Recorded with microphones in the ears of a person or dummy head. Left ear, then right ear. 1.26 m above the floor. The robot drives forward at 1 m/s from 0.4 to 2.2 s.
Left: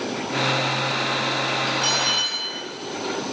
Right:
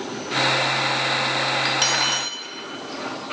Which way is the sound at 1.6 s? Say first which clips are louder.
Even; 50° right (ahead or behind).